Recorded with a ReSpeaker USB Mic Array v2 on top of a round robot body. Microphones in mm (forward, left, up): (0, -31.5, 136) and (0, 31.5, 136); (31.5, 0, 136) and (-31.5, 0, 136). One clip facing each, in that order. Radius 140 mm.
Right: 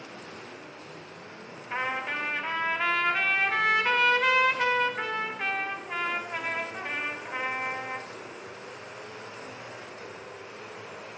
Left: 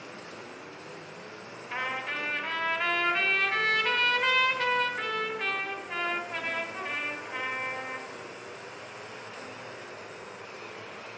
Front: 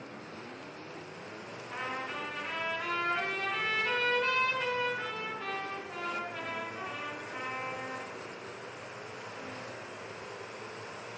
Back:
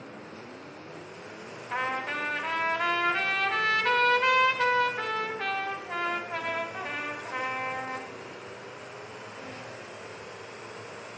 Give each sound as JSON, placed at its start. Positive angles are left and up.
{"t": 1.7, "sound": "a trumpet", "azimuth_deg": -165, "distance_m": 2.0}